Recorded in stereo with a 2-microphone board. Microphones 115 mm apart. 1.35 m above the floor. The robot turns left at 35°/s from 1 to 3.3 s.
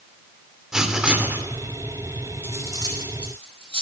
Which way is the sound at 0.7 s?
5° right (ahead or behind).